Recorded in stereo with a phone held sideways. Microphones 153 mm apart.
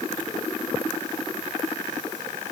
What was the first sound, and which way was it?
Only background noise.